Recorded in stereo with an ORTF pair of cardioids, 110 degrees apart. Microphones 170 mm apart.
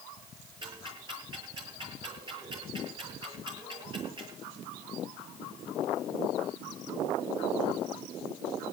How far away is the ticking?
About 8.5 m.